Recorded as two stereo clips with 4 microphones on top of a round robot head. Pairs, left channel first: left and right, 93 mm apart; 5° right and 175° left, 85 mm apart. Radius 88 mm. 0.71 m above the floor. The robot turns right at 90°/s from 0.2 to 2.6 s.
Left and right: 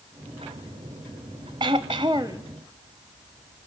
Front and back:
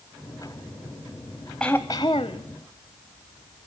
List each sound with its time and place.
1.6 s throat clearing: 90° right, 0.6 m; by 2.5 s 15° right, 0.6 m